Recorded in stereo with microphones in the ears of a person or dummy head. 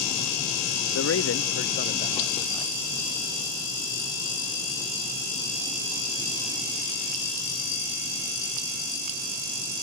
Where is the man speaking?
70° left (ahead or behind), 0.7 m; by 2.7 s 20° left (ahead or behind), 1.3 m.